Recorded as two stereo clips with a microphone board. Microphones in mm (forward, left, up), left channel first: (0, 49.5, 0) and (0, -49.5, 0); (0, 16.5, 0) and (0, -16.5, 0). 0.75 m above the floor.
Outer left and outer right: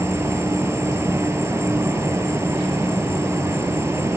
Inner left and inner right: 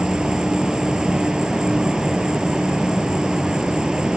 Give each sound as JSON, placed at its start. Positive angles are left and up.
{"t": 0.0, "sound": "an insect", "side_deg": -25}